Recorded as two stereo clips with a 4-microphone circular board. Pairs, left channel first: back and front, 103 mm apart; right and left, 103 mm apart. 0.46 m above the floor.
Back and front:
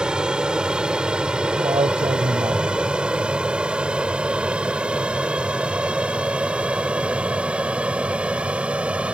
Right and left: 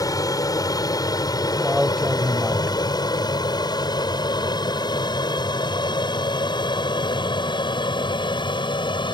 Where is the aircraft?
75° right.